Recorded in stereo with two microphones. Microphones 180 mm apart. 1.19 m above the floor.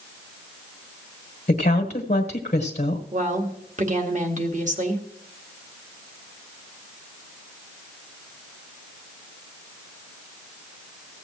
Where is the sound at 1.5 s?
40° left (ahead or behind), 1.3 m.